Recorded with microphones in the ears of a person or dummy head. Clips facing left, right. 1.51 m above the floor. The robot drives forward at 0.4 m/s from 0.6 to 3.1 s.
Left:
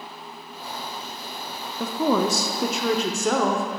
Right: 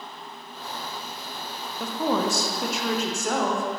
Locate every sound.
1.8 s a woman speaking: 80° left, 0.7 m; by 3.6 s 55° left (ahead or behind), 0.8 m